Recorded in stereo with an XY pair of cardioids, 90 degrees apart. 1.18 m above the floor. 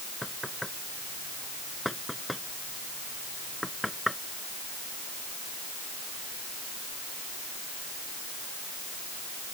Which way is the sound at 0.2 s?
5° left.